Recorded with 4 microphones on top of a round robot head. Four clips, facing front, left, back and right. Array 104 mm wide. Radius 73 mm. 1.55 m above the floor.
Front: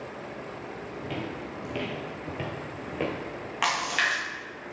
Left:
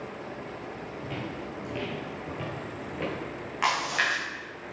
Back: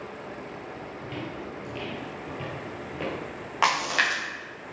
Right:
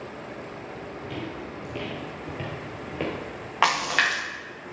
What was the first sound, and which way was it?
Footsteps, 20° left.